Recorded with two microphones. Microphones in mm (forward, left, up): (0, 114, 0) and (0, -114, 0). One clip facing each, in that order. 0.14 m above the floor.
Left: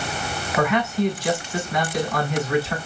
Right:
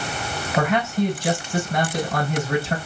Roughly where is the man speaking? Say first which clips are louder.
Even; right.